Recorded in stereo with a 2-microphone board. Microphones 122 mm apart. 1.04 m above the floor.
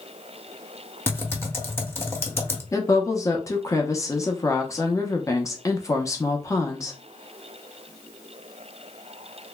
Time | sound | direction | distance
1.1 | typing on a keyboard | 20° left (ahead or behind) | 0.7 m
2.7 | a woman speaking | 25° left (ahead or behind) | 0.5 m